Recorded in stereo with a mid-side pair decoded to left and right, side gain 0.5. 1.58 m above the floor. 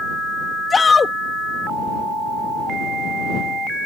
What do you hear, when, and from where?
0.7 s a shout: 30° left